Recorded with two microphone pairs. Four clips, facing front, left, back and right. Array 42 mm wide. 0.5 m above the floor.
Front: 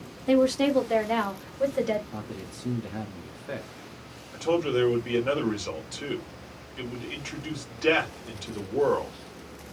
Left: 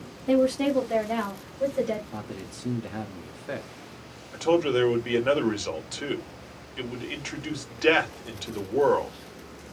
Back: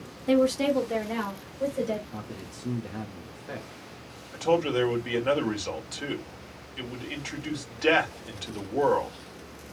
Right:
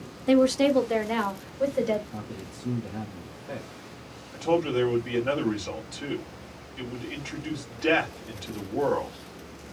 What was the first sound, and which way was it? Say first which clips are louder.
A woman speaking: right 2 dB, front 1 dB; 85° right.